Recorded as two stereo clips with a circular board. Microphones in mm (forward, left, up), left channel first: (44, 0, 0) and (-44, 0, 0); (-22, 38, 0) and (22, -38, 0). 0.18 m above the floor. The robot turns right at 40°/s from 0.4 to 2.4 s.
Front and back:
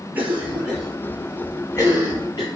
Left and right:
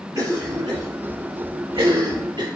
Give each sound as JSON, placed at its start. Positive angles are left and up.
{"t": 0.1, "sound": "a cough", "azimuth_deg": -110, "distance_m": 5.0}